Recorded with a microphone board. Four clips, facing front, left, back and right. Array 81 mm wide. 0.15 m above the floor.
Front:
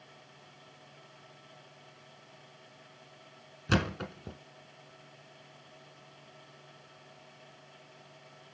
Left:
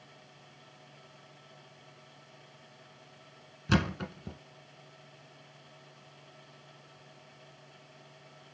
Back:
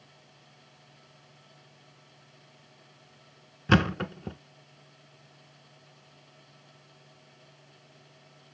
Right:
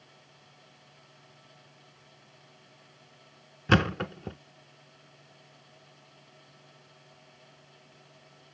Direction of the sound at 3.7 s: 130° right.